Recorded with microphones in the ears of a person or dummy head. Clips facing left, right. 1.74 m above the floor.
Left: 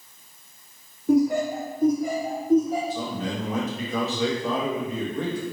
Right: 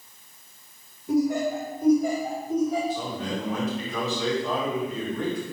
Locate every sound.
1.1 s laughter: 45° left (ahead or behind), 0.6 m; by 2.8 s 85° left, 1.9 m
2.9 s a man speaking: 80° left, 1.8 m